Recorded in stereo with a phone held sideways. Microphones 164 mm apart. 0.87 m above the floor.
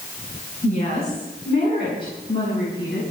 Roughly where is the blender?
I don't hear a blender.